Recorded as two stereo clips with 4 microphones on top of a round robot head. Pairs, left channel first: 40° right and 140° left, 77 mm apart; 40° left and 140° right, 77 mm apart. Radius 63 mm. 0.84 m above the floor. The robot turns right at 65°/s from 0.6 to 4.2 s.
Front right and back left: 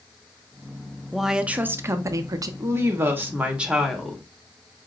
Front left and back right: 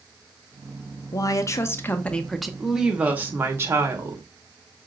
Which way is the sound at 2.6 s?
135° left.